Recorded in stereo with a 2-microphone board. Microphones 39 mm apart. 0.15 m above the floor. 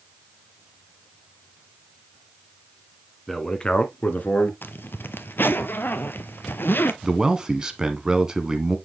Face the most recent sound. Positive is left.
turn(degrees=-20)  # may be behind; listen again after turning